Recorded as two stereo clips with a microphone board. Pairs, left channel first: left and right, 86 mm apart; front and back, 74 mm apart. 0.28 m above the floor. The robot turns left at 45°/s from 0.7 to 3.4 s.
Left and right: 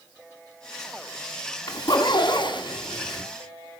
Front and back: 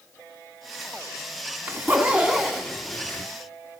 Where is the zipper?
130° left, 2 m; by 3.2 s 55° left, 2 m.